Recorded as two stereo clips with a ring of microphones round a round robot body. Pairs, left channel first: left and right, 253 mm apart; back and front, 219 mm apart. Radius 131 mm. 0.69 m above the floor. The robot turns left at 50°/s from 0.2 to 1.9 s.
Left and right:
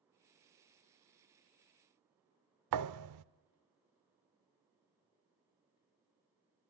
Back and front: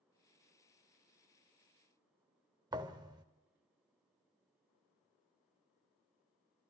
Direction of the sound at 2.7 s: 75° right.